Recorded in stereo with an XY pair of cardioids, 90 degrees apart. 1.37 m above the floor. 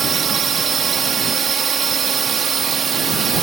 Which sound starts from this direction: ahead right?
A drone, at 0.0 s.